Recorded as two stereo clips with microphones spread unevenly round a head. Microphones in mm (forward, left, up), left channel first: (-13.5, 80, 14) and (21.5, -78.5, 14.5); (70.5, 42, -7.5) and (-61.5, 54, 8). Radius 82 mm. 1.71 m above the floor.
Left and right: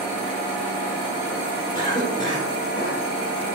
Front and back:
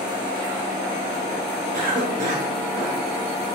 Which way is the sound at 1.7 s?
165° left.